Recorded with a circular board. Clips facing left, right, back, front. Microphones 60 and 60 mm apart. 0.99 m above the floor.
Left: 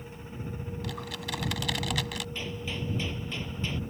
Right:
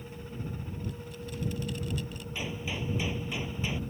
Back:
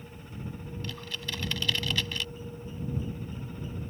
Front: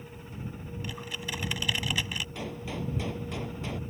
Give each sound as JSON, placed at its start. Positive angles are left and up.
{"t": 0.8, "sound": "typing on a keyboard", "azimuth_deg": 75}
{"t": 2.4, "sound": "a gunshot", "azimuth_deg": -15}